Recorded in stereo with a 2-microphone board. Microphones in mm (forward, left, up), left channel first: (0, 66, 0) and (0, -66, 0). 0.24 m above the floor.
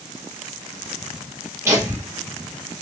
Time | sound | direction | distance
1.6 | laughter | 20° right (ahead or behind) | 3 m